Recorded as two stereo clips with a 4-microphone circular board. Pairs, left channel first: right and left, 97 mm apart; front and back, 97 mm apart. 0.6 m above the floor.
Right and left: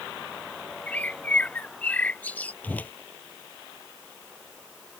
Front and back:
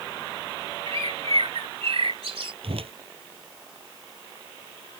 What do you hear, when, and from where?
0.9 s a bird: 165° right
2.6 s a whoosh: 165° right